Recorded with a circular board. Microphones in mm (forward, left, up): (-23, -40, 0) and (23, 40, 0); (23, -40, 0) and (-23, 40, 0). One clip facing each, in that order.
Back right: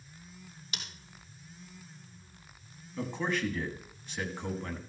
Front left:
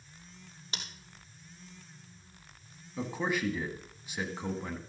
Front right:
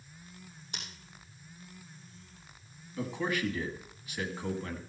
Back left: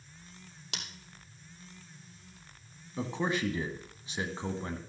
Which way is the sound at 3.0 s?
130° left.